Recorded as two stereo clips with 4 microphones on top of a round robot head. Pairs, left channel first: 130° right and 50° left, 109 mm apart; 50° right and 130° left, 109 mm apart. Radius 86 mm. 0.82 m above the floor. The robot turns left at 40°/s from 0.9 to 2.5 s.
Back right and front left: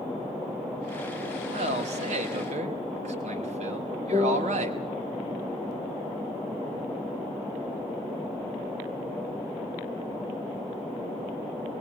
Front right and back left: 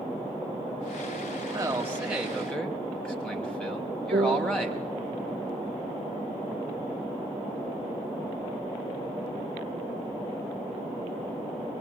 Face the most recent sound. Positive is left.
turn(degrees=100)